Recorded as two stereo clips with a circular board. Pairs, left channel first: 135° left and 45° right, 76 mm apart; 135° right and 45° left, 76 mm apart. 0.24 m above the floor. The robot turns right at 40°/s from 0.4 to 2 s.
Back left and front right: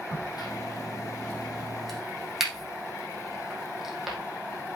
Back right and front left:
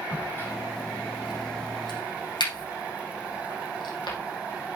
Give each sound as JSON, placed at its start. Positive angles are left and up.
{"t": 0.1, "sound": "a crack", "azimuth_deg": 165, "distance_m": 4.5}